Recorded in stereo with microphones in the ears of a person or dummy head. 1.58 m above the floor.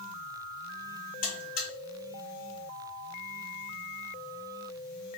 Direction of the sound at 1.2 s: 45° left (ahead or behind).